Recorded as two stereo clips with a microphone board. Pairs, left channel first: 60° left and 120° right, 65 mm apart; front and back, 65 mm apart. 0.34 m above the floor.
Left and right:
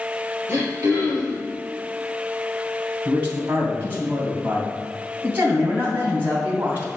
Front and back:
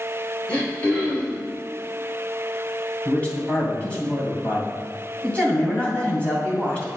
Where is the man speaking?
65° right, 2 m.